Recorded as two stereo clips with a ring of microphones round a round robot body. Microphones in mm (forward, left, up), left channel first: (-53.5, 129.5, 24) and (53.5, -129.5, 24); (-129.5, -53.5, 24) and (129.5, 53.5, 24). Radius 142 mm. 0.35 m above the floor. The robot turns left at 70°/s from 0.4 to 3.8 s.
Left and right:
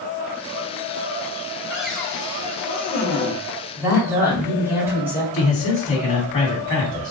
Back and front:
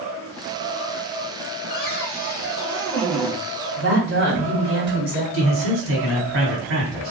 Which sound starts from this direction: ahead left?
A man speaking, at 5.3 s.